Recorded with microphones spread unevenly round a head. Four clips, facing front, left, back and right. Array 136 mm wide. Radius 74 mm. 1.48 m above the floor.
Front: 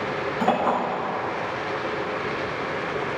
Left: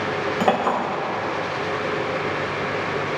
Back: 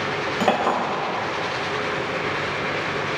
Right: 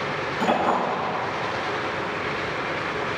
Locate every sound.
0.4 s a clink: 135° left, 5.5 m